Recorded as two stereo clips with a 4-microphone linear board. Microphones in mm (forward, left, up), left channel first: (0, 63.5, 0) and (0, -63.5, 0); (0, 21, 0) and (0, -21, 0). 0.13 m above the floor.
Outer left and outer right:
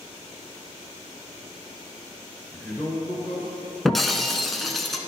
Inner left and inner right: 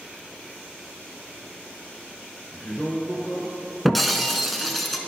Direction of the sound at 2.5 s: 10° left (ahead or behind).